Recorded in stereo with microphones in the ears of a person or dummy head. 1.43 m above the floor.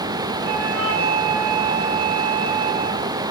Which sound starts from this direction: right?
A flute, at 0.4 s.